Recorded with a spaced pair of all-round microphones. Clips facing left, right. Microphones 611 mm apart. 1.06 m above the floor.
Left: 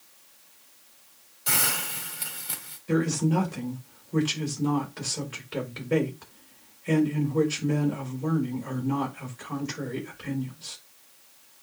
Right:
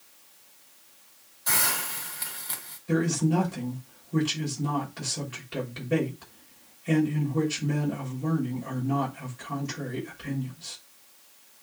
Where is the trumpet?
No trumpet in this recording.